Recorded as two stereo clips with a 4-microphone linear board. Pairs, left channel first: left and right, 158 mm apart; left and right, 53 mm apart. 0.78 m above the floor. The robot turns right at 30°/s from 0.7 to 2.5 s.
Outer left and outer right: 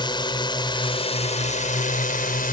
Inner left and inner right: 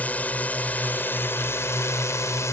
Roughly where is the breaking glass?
No breaking glass in this recording.